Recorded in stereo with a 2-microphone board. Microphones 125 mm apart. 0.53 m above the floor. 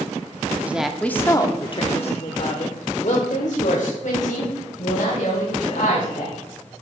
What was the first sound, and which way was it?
A woman speaking, 15° right (ahead or behind).